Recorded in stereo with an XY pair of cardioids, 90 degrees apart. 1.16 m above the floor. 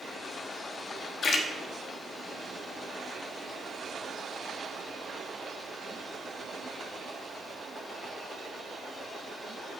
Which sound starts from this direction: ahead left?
A splash, at 1.2 s.